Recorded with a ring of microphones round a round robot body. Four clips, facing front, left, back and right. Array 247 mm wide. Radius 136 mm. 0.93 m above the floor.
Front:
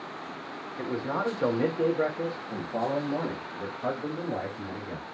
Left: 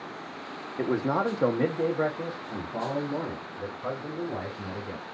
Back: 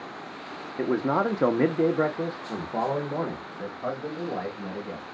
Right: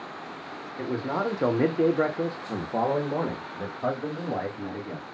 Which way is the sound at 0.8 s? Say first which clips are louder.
Left 2 dB, back 6 dB; 145° left.